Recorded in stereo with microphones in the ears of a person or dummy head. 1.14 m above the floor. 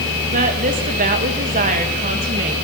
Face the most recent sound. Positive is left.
turn(degrees=-40)  # may be behind; listen again after turning